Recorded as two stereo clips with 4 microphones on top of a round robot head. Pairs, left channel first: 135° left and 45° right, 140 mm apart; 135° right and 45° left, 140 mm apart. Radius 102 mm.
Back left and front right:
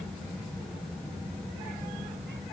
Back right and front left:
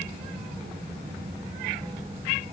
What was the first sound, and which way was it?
Only background noise.